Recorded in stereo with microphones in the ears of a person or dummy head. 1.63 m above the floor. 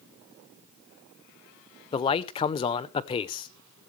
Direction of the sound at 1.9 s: 30° left (ahead or behind).